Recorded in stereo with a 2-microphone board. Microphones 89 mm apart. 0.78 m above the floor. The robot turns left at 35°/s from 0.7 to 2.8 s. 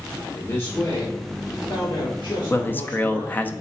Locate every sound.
0.3 s a man speaking: 145° left, 2 m; by 3.5 s 75° left, 2 m
2.5 s a man speaking: 30° left (ahead or behind), 0.6 m; by 3.5 s 20° left (ahead or behind), 0.6 m